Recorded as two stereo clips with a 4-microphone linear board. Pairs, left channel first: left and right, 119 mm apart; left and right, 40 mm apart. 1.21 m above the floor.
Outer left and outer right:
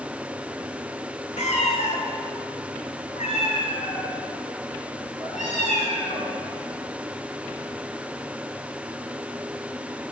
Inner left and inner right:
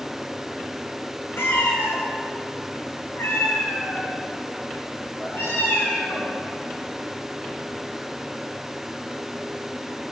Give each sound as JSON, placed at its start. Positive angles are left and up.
{"t": 1.4, "sound": "a cat meowing", "side_deg": 80, "distance_m": 3.5}